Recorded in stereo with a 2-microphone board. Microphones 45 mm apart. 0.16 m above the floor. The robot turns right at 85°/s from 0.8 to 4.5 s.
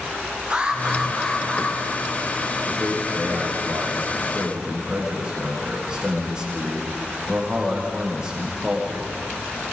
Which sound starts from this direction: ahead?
An alarm, at 0.5 s.